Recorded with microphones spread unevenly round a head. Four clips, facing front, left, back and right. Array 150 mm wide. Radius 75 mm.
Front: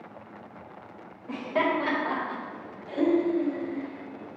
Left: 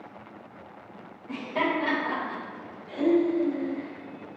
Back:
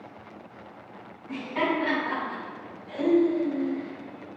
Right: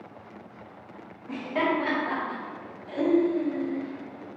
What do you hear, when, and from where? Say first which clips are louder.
1.3 s laughter: right 1 dB, front 1 dB; 15° right, 2.5 m; by 4.3 s 30° right, 4 m